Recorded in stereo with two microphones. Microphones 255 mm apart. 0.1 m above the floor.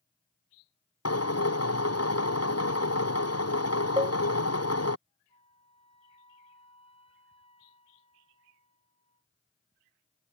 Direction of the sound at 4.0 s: 20° right (ahead or behind).